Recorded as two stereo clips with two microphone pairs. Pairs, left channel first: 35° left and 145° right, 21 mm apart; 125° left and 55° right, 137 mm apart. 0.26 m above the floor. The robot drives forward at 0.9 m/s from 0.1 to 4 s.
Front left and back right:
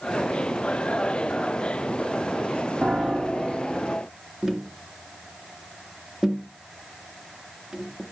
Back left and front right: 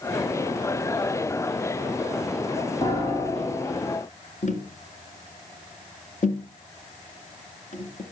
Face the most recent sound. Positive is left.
turn(degrees=150)